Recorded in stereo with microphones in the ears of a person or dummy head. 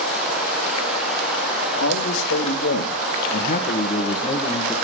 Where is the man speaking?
85° left, 3.5 m; by 4.8 s 5° left (ahead or behind), 2 m.